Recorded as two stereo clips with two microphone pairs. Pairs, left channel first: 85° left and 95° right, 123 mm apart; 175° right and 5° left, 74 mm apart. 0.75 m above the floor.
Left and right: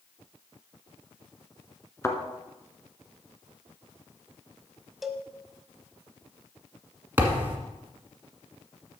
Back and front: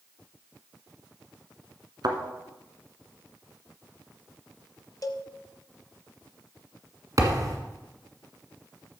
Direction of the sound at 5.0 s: Straight behind.